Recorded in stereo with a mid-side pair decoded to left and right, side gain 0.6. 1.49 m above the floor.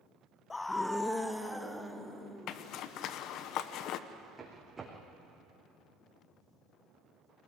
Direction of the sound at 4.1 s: 20° right.